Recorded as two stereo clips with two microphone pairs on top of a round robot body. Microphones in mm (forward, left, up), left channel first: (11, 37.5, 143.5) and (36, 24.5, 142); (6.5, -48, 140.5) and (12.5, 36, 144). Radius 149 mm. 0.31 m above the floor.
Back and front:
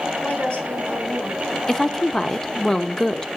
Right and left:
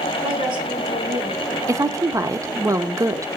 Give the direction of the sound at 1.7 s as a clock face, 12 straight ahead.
9 o'clock.